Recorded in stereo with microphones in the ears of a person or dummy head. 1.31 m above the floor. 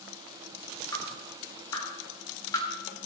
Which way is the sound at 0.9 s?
15° left (ahead or behind).